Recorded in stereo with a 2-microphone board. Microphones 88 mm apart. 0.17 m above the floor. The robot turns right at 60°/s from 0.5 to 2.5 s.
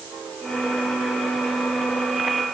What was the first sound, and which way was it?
Only background noise.